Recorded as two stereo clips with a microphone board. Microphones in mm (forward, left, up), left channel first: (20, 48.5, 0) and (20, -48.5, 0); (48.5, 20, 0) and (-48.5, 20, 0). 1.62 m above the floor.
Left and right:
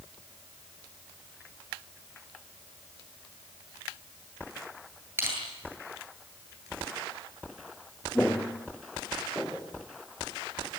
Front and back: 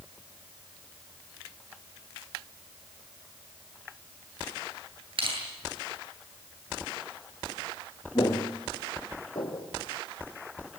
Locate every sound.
5.2 s crushing: 155° right, 9.5 m
8.2 s footsteps: 15° left, 2 m; by 9.7 s 10° left, 3.5 m